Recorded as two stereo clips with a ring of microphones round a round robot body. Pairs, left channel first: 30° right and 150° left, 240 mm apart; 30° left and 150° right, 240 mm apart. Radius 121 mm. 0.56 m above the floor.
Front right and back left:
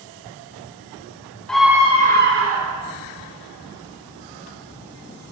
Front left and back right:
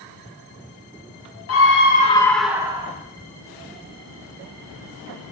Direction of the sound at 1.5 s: 55° left.